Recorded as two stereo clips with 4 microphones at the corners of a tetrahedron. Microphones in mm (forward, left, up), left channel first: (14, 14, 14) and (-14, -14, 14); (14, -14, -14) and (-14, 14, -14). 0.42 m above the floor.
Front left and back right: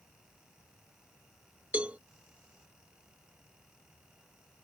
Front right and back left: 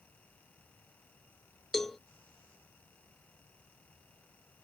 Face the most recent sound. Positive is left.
turn(degrees=-120)